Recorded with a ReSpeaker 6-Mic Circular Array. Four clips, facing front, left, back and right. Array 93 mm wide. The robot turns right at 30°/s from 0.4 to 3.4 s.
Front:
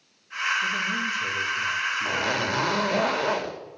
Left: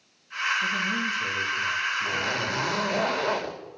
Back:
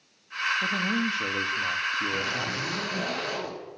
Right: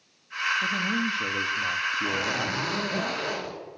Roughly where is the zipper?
Ahead.